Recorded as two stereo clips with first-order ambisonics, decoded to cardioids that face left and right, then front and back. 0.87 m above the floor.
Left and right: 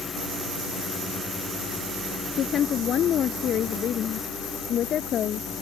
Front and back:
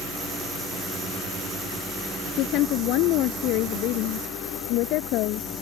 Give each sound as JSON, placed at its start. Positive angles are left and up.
{"t": 2.4, "sound": "a woman speaking", "azimuth_deg": 35}